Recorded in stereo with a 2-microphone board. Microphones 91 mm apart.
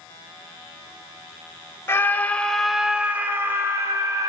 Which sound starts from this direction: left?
A scream, at 1.9 s.